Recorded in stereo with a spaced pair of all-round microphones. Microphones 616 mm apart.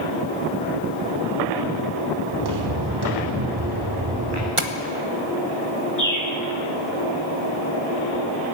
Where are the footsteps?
40° right (ahead or behind), 5 m.